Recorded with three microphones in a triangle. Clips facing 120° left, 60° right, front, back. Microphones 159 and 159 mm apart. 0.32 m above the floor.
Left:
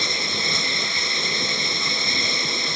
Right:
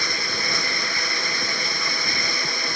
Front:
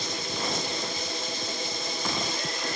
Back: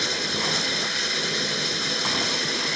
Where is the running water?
175° right.